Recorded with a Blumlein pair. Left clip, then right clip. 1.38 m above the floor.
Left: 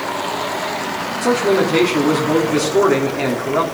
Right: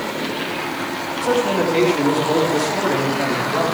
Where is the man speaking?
70° left, 4 m.